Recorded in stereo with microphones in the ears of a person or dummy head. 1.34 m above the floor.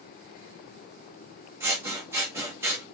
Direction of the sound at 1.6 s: 15° right (ahead or behind).